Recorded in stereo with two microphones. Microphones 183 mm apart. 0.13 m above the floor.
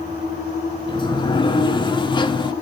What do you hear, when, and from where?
0.9 s a sliding door: 30° left (ahead or behind), 0.6 m